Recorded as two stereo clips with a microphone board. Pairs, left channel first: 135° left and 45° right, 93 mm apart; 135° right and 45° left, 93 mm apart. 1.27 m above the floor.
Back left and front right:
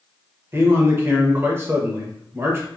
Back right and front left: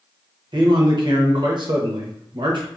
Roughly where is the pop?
I don't hear a pop.